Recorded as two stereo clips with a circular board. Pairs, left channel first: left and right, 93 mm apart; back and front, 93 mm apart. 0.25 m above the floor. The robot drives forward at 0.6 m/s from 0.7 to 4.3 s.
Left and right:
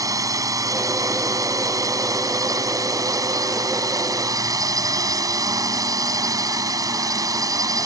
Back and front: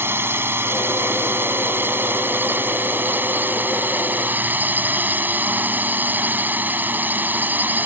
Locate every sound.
0.0 s a drone: 55° right; by 7.9 s 60° right